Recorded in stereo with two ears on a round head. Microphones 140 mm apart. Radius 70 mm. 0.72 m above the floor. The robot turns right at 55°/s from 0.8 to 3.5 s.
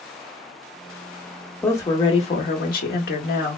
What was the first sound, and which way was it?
A woman speaking, 15° left.